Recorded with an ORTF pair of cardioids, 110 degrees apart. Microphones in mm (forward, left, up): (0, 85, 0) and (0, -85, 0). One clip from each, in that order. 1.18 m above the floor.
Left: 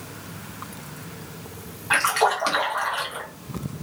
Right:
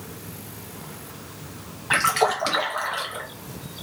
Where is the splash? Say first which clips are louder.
Even; 5° right, 0.8 m.